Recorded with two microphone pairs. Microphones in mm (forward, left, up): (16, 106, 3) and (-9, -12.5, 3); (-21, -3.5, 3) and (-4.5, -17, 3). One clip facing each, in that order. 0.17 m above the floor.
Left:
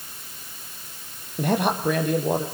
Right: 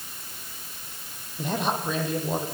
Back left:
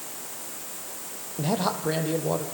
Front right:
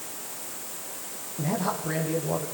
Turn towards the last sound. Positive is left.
turn(degrees=105)